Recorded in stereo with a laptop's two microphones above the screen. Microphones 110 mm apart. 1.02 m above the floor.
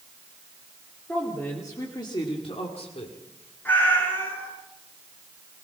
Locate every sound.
1.1 s a woman speaking: 15° left (ahead or behind), 2.5 m; by 3.1 s 70° left (ahead or behind), 2.5 m
3.6 s a cat meowing: 15° left (ahead or behind), 8 m